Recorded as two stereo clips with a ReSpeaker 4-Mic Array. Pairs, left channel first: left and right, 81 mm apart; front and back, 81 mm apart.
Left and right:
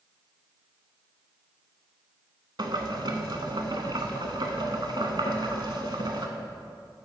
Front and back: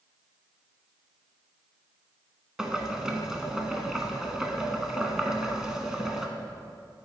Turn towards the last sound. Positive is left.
turn(degrees=-95)